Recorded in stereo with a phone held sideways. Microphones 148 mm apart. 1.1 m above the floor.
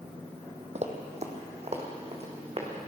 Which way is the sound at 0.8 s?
50° right (ahead or behind).